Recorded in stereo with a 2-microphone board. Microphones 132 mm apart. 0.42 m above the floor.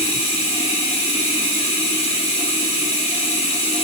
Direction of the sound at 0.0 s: 55° left (ahead or behind).